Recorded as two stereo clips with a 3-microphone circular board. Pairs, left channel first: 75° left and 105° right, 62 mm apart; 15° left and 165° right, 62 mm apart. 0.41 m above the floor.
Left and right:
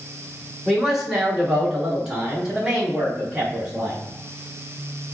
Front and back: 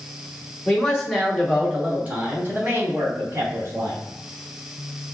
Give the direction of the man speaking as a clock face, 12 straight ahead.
1 o'clock.